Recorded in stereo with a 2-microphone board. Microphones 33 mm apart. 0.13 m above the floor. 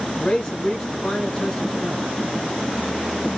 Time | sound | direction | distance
0.2 | a man speaking | 20° left (ahead or behind) | 1.3 m